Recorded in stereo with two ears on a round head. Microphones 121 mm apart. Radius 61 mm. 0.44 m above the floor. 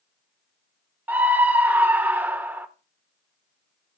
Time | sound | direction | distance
1.1 | a scream | 15° right (ahead or behind) | 1.2 m